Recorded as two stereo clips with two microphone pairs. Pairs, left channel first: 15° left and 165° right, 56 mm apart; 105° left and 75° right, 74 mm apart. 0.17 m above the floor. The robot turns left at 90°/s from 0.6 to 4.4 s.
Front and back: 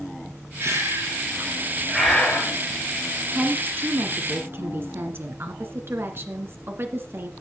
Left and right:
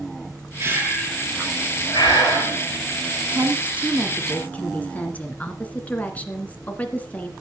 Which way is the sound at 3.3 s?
95° right.